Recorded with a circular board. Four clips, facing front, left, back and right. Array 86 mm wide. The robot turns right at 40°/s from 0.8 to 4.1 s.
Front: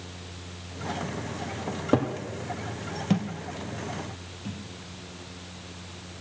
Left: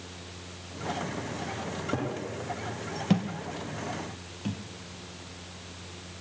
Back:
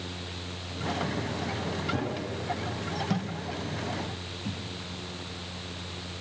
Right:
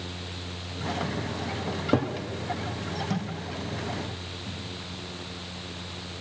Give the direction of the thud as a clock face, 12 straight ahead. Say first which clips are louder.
Left 3 dB, front 3 dB; 10 o'clock.